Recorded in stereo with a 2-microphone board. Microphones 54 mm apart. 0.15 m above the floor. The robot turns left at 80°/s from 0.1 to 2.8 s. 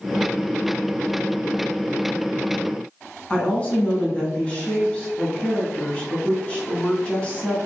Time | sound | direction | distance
3.3 | a woman speaking | 20° left (ahead or behind) | 1.2 m